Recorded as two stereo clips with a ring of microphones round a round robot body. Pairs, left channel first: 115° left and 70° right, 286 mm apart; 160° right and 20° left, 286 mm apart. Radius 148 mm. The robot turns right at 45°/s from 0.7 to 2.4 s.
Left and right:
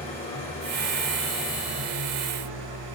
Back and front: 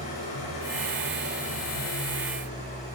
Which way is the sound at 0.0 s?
175° right.